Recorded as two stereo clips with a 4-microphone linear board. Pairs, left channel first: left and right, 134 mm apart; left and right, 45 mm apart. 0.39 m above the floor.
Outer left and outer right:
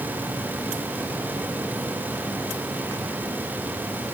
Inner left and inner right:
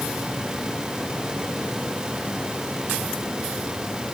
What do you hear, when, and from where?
Only background noise.